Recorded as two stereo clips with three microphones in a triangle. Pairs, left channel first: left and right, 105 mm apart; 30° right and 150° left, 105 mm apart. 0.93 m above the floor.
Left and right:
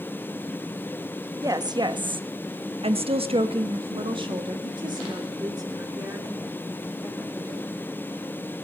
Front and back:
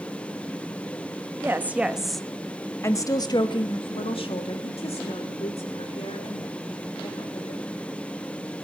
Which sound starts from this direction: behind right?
A woman speaking, at 1.4 s.